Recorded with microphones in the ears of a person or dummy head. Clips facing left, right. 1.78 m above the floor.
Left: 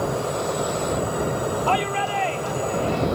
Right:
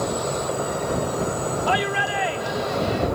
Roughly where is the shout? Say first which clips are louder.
Even; centre.